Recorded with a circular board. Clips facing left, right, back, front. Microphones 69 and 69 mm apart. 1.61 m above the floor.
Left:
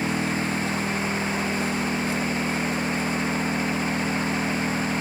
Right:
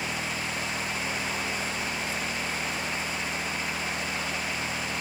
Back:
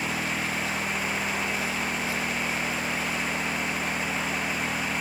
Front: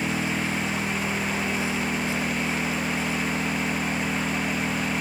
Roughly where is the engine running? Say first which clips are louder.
Left 7 dB, front 3 dB; ahead left.